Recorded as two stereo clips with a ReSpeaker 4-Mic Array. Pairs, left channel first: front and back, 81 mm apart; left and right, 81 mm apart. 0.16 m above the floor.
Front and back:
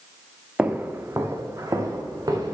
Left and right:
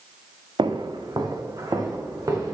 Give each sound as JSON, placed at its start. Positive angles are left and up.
{"t": 0.6, "sound": "footsteps", "azimuth_deg": -105, "distance_m": 0.9}